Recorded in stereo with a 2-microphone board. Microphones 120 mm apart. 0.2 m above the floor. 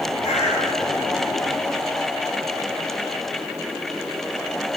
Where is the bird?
70° left (ahead or behind), 2.5 m.